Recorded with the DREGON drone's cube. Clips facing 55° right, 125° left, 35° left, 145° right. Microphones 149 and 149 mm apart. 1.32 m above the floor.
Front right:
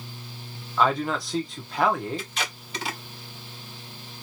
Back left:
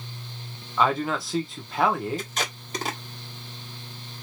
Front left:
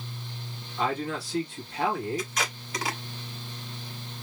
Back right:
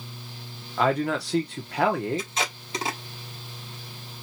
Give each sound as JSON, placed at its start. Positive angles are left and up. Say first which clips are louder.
{"t": 0.8, "sound": "a man speaking", "louder": "even, back right 6 dB", "azimuth_deg": -150, "distance_m": 1.2}
{"t": 2.2, "sound": "tape being pulled", "louder": "back left 2 dB, back right 1 dB", "azimuth_deg": 155, "distance_m": 1.4}